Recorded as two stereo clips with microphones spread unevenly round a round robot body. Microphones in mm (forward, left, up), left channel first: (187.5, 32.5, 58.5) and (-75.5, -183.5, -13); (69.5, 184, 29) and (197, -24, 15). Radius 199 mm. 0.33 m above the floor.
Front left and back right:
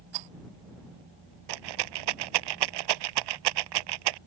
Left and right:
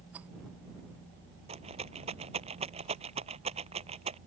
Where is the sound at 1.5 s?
135° right.